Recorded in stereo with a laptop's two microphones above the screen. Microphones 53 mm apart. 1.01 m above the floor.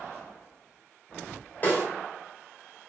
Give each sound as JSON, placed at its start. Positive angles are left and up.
{"t": 1.6, "sound": "a snare drum", "side_deg": 40, "distance_m": 0.9}